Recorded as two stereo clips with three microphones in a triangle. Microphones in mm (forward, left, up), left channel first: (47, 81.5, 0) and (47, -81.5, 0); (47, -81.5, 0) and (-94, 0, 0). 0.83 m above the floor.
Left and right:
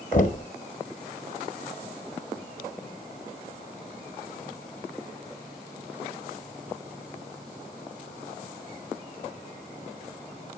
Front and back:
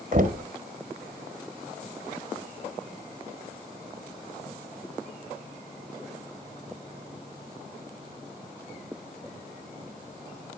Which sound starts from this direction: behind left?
Knocking, at 0.1 s.